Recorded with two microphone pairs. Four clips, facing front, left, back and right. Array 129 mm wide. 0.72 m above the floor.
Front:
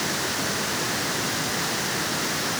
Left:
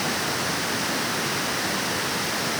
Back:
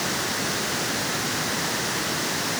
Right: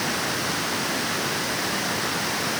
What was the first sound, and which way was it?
Only background noise.